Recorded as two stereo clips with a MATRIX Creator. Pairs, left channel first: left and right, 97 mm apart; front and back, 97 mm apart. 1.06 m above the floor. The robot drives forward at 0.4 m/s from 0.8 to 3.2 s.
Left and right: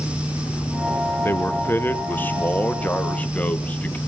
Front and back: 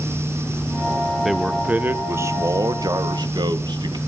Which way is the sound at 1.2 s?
95° left.